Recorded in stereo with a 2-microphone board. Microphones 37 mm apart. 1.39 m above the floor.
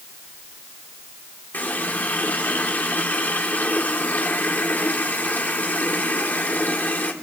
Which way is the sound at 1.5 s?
60° left (ahead or behind).